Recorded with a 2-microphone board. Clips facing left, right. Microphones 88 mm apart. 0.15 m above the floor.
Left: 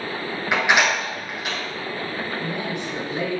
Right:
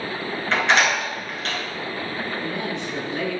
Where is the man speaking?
15° left (ahead or behind), 1.6 m.